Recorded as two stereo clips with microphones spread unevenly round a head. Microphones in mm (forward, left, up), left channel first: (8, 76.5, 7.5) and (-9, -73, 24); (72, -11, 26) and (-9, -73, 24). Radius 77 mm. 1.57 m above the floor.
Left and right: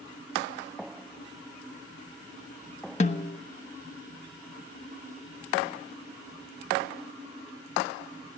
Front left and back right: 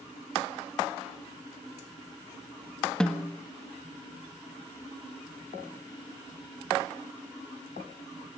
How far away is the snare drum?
About 0.9 m.